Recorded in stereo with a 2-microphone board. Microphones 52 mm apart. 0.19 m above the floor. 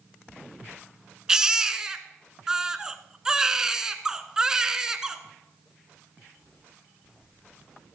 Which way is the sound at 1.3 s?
10° right (ahead or behind).